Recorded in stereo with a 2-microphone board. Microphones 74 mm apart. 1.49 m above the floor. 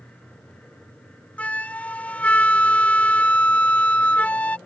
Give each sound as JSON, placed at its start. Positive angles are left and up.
{"t": 1.4, "sound": "a flute", "side_deg": 20}